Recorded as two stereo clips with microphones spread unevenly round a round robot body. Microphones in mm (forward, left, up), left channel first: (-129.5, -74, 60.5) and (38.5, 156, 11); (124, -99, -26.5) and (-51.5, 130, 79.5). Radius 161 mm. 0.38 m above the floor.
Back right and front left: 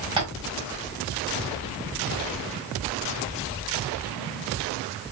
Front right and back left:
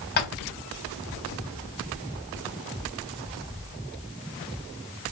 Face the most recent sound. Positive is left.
turn(degrees=-15)